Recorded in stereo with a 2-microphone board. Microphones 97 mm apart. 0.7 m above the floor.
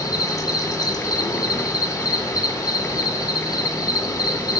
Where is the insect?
35° left (ahead or behind), 0.8 m.